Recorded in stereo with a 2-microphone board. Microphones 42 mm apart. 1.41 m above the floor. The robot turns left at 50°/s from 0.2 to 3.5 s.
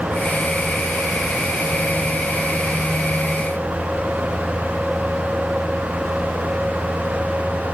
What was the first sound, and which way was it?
Only background noise.